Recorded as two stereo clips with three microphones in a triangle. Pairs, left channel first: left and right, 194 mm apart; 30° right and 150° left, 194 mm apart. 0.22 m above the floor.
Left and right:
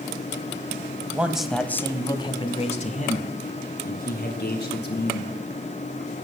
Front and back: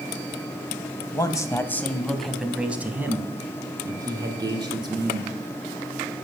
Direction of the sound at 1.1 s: 30° right.